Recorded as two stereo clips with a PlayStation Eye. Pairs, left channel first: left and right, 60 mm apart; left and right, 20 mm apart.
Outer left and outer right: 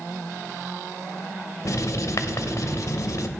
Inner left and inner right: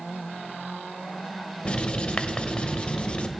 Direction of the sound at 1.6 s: 70° left (ahead or behind).